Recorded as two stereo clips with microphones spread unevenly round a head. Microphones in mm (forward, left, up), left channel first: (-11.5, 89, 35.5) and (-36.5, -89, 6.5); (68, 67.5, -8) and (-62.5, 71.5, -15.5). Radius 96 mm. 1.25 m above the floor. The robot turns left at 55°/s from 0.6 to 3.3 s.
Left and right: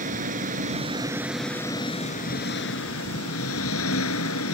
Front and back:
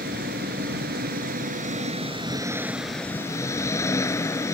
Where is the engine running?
145° right; by 4.5 s 65° left.